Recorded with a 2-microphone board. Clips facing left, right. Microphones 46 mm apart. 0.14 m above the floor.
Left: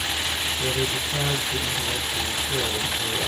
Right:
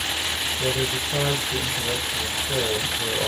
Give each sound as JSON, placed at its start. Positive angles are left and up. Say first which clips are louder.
{"t": 0.6, "sound": "a man speaking", "louder": "right 2 dB", "side_deg": -50, "distance_m": 1.8}